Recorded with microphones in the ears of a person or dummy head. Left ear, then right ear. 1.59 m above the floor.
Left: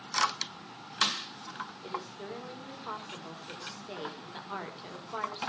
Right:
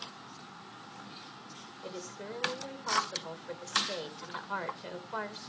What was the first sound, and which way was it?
A woman speaking, 20° right (ahead or behind).